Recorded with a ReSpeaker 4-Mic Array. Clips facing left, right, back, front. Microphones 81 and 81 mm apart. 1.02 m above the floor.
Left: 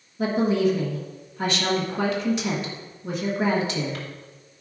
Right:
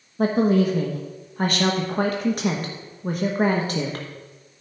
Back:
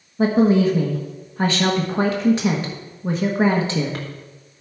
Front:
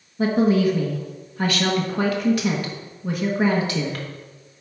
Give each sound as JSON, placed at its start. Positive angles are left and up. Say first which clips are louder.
{"t": 0.2, "sound": "a woman speaking", "louder": "right 2 dB, back 2 dB", "azimuth_deg": -125, "distance_m": 1.1}